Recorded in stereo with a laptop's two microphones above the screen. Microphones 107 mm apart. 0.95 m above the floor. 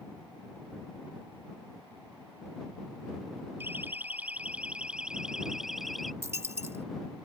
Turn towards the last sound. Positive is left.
turn(degrees=-25)  # may be behind; listen again after turning